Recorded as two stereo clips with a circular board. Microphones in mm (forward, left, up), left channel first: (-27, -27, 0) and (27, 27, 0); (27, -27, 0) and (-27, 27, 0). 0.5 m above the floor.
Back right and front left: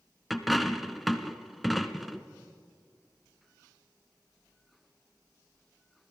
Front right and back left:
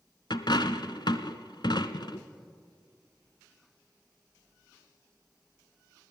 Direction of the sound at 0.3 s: 45° right.